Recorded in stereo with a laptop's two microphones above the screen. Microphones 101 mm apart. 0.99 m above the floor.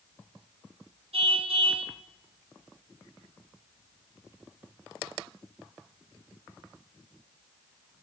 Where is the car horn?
75° right (ahead or behind), 4 m.